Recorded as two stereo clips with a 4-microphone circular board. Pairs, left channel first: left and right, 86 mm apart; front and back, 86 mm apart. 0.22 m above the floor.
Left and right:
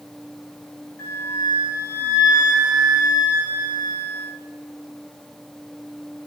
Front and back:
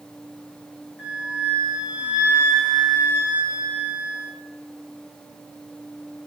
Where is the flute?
115° left, 1.8 m.